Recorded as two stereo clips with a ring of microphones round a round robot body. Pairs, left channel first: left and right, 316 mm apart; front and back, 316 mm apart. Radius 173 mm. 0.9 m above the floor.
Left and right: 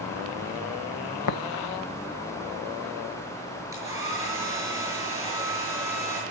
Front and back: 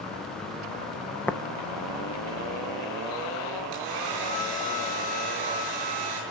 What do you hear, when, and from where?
1.3 s tapping: 85° left, 1.0 m
3.7 s a hair dryer: 170° right, 6.5 m